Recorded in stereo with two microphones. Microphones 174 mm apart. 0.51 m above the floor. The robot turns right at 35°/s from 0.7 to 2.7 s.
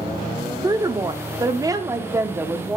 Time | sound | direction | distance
0.6 | a woman speaking | 20° right (ahead or behind) | 0.7 m